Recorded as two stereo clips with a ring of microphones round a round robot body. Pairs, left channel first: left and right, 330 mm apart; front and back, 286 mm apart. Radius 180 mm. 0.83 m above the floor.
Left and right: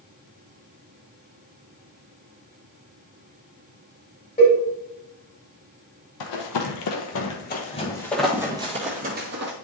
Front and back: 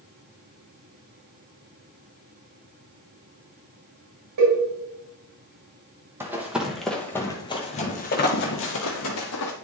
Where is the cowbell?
165° left, 4 m.